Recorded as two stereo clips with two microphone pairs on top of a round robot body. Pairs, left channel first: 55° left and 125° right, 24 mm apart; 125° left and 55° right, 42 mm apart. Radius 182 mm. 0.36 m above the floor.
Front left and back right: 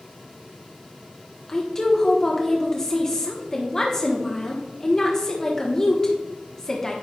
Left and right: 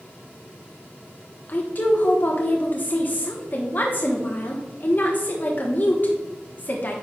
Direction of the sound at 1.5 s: 110° left.